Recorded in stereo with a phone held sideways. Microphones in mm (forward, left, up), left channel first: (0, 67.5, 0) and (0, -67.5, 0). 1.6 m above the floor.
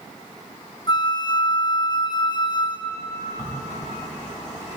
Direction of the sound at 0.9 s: 35° left (ahead or behind).